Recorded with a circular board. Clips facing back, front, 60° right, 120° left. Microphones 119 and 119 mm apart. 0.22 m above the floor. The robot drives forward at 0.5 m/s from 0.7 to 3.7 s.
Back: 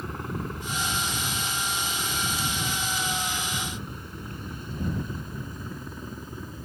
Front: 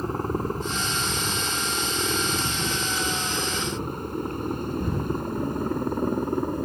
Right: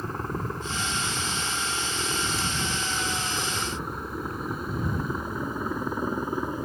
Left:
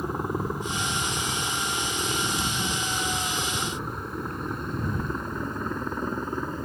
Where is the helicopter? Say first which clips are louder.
Front 7 dB, left 3 dB; 45° left; by 6.7 s 20° left.